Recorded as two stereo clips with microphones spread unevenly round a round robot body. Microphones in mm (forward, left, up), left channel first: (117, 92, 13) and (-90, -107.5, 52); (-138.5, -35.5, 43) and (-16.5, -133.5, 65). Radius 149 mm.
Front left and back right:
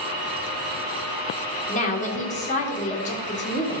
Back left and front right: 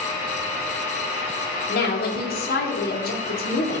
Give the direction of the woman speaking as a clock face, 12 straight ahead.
8 o'clock.